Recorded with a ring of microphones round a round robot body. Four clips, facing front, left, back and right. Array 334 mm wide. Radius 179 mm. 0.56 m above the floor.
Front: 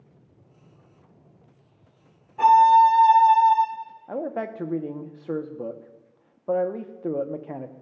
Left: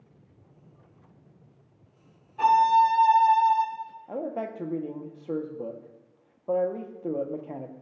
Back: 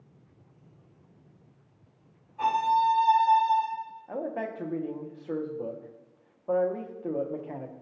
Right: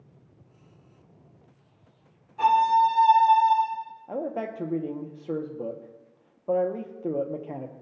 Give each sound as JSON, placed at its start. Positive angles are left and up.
{"t": 2.4, "sound": "a violin", "azimuth_deg": 10, "distance_m": 1.0}
{"t": 4.1, "sound": "a man speaking", "azimuth_deg": -15, "distance_m": 0.7}